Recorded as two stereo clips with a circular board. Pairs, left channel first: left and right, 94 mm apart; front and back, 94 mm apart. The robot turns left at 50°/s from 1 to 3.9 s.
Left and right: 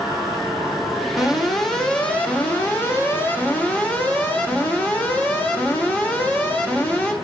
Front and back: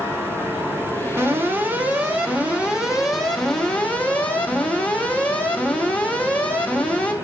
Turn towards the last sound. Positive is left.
turn(degrees=50)